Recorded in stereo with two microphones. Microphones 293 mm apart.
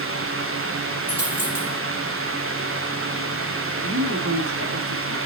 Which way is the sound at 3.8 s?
70° right (ahead or behind).